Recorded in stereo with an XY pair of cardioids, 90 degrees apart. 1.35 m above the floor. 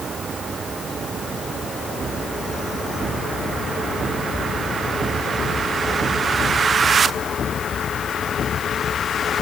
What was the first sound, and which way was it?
Only background noise.